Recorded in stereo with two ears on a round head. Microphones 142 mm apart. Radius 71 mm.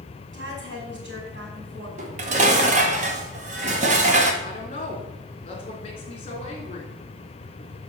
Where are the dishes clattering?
50° right (ahead or behind), 1.7 m.